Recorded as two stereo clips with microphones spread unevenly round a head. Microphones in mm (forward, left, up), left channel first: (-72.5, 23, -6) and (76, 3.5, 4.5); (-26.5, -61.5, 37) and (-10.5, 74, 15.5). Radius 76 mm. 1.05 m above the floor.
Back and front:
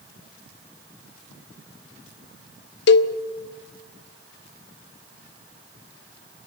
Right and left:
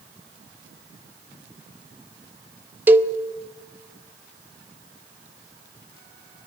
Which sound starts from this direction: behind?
A cowbell, at 2.9 s.